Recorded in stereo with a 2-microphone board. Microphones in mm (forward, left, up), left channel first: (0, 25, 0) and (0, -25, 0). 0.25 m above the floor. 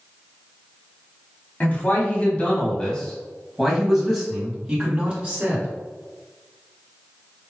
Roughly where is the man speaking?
Left.